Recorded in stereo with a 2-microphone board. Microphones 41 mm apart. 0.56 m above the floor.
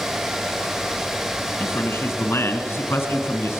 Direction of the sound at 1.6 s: 65° left (ahead or behind).